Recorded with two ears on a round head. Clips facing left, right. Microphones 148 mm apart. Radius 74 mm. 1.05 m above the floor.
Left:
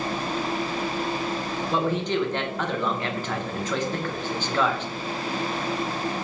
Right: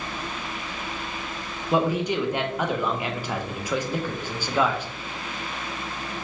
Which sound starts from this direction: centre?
A man speaking, at 1.7 s.